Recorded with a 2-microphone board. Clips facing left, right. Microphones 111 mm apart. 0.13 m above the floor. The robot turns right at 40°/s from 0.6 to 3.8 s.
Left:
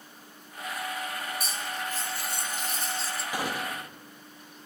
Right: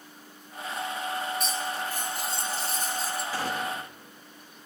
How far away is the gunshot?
About 1.1 m.